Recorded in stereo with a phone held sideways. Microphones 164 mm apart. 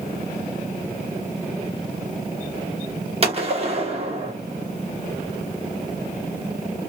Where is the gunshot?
40° right (ahead or behind), 1.0 m.